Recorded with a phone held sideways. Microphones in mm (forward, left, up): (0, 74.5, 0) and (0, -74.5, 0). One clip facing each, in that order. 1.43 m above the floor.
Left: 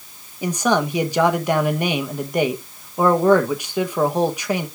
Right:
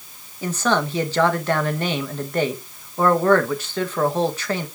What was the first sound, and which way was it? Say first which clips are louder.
A man speaking: left 2 dB; 15° left (ahead or behind).